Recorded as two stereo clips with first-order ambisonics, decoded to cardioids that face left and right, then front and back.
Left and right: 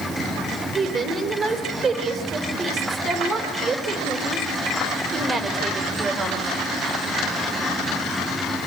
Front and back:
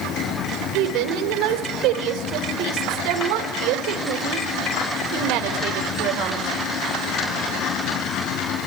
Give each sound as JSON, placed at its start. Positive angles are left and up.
{"t": 0.7, "sound": "a woman speaking", "azimuth_deg": -160, "distance_m": 3.5}